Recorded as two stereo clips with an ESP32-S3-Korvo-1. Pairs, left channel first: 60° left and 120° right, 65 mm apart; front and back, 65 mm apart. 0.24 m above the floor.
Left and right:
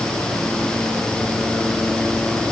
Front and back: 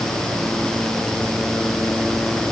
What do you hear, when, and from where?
Only background noise.